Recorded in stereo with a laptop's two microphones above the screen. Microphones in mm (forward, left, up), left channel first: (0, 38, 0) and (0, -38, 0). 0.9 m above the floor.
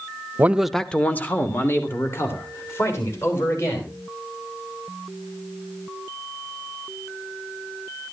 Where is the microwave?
No microwave in this recording.